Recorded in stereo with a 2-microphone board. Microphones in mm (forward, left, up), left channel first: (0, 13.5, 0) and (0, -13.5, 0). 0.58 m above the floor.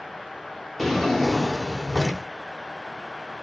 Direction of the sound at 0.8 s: 10° left (ahead or behind).